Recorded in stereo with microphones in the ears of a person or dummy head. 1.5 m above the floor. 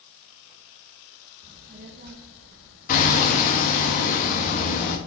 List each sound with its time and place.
1.4 s a child speaking: 25° right (ahead or behind), 0.9 m; by 3.9 s 75° right (ahead or behind), 2.5 m
2.9 s hammering: 45° left (ahead or behind), 1.2 m